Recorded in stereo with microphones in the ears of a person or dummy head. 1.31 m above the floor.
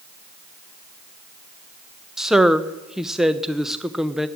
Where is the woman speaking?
5° left (ahead or behind), 0.9 m.